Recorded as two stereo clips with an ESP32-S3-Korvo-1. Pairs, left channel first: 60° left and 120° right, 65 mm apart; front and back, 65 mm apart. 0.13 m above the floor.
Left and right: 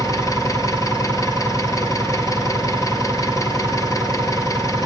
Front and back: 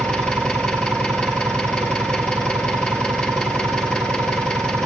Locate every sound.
0.0 s an engine running: 75° left, 1.7 m